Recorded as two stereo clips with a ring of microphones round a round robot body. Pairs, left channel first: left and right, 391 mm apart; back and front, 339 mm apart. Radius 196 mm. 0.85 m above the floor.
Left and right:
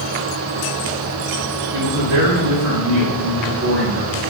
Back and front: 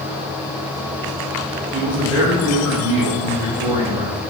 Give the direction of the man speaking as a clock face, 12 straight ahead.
3 o'clock.